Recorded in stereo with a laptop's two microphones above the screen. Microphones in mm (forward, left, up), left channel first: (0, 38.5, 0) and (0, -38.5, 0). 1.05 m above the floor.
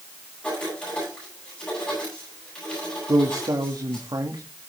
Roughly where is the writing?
Centre.